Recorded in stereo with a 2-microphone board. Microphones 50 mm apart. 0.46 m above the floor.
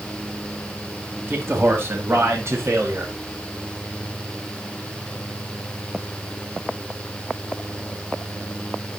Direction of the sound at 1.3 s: 45° right (ahead or behind).